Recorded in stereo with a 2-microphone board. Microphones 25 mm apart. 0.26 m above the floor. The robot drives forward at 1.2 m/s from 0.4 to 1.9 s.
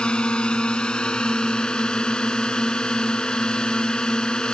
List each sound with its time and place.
0.0 s a drone: 45° left (ahead or behind); by 4.5 s 35° left (ahead or behind)